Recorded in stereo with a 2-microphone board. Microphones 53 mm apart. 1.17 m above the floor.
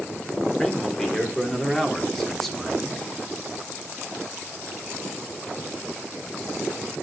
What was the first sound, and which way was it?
A man speaking, 15° left (ahead or behind).